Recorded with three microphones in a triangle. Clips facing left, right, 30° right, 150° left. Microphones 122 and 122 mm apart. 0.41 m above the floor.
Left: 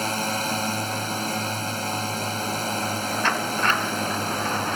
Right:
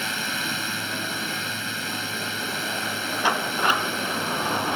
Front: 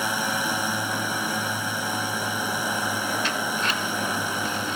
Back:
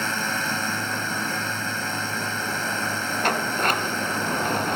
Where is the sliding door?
170° right.